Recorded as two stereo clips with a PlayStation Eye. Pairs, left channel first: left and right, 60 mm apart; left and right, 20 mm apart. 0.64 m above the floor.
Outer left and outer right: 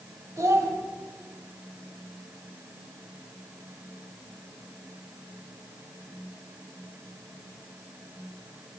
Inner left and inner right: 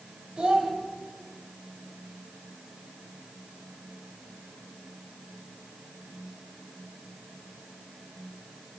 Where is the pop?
No pop in this recording.